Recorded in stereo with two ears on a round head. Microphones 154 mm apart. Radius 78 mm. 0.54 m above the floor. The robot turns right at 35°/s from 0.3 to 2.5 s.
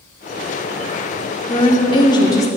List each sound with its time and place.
1.5 s a woman speaking: 110° left, 0.8 m; by 2.5 s 145° left, 0.8 m